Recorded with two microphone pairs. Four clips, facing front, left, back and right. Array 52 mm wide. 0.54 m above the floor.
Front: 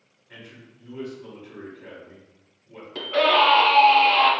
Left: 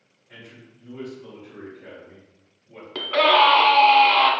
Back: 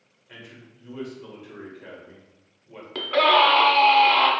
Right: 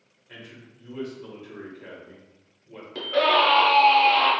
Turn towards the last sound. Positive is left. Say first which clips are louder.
# left 3 dB, back 1 dB
turn(degrees=140)